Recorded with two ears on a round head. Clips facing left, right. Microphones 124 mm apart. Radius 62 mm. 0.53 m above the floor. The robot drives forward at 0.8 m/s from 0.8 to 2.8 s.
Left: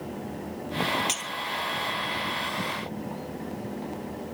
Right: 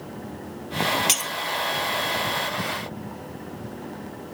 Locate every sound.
1.1 s breaking glass: 60° right (ahead or behind); by 1.3 s 65° right (ahead or behind)